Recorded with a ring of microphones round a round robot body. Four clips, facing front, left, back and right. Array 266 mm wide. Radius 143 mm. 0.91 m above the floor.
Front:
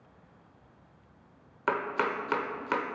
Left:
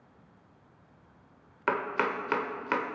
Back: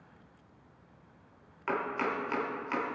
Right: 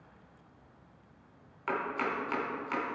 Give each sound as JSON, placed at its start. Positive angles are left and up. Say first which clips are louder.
{"t": 1.7, "sound": "chopping", "louder": "left 4 dB, front 3 dB", "azimuth_deg": 50, "distance_m": 0.9}